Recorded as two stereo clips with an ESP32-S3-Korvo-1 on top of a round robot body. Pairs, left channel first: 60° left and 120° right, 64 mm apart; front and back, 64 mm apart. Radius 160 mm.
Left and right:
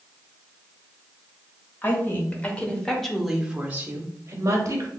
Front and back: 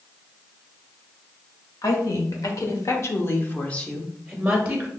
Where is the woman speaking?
5° left, 1.4 m; by 4.9 s 110° right, 1.1 m.